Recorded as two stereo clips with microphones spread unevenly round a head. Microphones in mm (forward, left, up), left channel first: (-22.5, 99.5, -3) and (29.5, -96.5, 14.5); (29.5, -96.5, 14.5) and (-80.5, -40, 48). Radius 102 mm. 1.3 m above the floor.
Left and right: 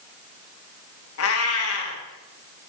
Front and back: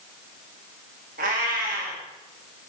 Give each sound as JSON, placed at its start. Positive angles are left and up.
{"t": 1.2, "sound": "a cat meowing", "azimuth_deg": 125, "distance_m": 1.3}